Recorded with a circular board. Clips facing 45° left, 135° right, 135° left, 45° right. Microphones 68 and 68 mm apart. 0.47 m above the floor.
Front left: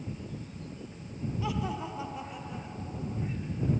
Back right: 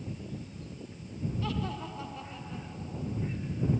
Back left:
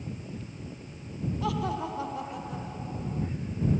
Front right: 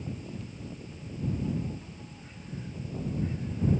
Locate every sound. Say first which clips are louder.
1.4 s laughter: front left 3 dB, back left 5 dB; 125° left; by 3.3 s 120° left